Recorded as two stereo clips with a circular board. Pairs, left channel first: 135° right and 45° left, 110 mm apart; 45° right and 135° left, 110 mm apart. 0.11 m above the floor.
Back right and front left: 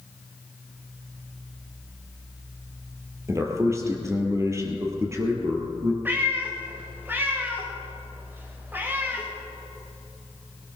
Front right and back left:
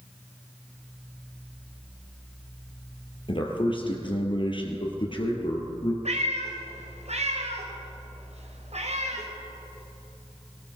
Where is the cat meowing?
120° left, 3.5 m.